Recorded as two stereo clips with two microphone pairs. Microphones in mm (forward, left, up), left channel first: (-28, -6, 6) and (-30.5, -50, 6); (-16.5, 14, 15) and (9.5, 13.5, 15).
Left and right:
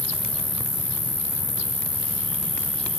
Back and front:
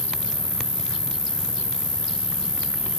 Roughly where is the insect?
Ahead right.